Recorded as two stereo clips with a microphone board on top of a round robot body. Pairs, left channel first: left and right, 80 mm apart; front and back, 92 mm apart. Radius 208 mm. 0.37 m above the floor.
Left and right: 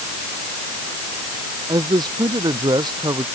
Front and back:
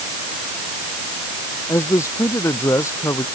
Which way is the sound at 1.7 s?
60° right.